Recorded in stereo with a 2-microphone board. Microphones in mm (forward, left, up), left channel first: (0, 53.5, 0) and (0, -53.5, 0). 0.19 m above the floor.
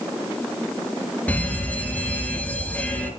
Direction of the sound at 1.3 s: 15° left (ahead or behind).